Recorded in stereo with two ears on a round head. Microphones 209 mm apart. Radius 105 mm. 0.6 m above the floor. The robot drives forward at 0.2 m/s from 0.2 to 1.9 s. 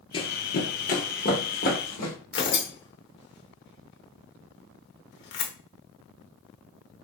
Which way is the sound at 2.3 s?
50° left (ahead or behind).